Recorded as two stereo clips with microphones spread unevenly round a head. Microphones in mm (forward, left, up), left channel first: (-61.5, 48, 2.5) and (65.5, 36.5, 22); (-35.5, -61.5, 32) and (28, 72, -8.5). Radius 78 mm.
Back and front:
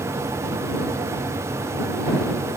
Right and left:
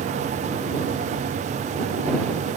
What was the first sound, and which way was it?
Only background noise.